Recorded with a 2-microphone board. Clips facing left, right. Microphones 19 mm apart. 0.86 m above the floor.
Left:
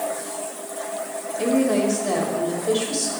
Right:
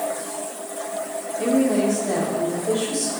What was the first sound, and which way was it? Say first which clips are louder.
A woman speaking: even; 55° left (ahead or behind).